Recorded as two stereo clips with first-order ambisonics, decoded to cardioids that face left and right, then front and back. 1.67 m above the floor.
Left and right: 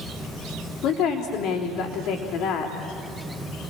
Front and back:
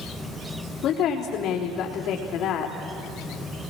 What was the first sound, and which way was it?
A woman speaking, 50° left.